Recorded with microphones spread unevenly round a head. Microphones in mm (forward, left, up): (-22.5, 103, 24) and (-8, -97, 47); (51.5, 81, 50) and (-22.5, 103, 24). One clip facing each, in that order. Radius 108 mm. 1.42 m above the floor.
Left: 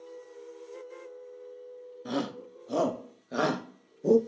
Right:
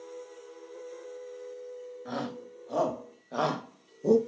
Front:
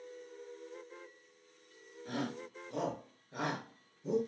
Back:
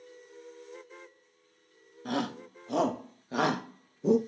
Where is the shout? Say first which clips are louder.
Left 5 dB, back 6 dB; 145° left, 2 m; by 4.2 s 175° right, 1.0 m.